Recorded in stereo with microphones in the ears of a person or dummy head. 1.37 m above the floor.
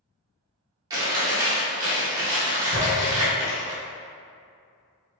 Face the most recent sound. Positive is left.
turn(degrees=40)  # may be behind; listen again after turning